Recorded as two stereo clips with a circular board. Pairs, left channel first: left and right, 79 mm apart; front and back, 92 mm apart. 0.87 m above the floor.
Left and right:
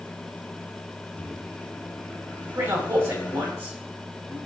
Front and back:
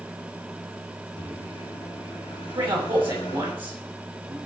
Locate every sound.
1.2 s a microwave: 25° left, 3.5 m
2.5 s a man speaking: 155° right, 5.5 m